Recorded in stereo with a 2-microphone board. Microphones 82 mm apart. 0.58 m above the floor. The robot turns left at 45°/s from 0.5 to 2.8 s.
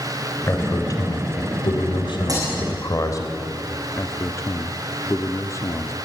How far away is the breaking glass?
About 6.5 m.